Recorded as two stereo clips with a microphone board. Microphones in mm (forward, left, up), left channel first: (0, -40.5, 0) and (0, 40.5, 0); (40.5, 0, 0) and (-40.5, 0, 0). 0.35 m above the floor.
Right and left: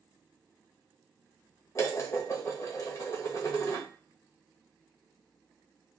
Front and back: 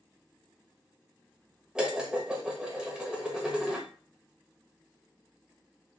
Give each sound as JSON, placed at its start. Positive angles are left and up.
{"t": 1.8, "sound": "dishes clattering", "azimuth_deg": -105, "distance_m": 0.9}